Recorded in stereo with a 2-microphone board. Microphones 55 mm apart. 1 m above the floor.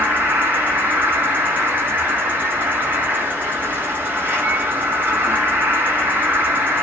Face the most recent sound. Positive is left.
turn(degrees=-35)  # may be behind; listen again after turning